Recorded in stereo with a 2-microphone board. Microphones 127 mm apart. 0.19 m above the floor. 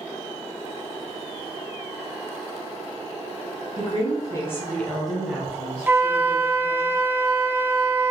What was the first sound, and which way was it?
A woman speaking, 40° left (ahead or behind).